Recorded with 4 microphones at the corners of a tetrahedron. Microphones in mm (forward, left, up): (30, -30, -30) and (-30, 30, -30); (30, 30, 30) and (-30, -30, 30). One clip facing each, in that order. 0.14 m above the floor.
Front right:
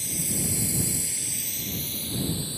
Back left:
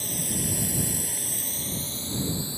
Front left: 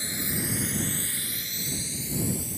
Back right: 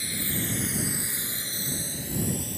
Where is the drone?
105° left; by 2.6 s 155° right.